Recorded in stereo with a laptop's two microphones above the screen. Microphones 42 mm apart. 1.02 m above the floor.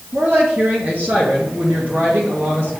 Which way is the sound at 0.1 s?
60° right (ahead or behind).